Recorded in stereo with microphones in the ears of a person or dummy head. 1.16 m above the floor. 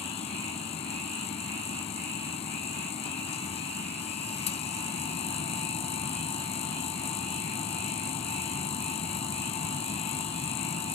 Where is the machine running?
25° left (ahead or behind).